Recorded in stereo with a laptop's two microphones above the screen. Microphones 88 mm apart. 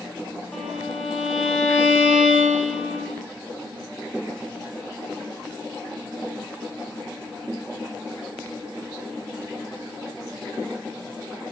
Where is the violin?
15° left (ahead or behind), 2.5 m.